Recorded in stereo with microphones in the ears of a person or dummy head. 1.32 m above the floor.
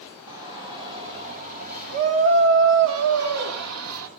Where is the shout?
20° right (ahead or behind), 2.5 m; by 4.1 s 75° right (ahead or behind), 2 m.